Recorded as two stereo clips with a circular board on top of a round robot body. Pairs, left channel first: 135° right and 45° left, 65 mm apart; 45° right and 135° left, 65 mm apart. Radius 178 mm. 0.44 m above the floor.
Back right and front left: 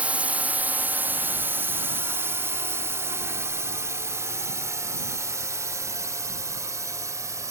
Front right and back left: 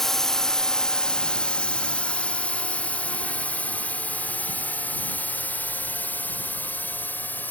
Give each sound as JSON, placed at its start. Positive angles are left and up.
{"t": 0.0, "sound": "a drone", "azimuth_deg": 30}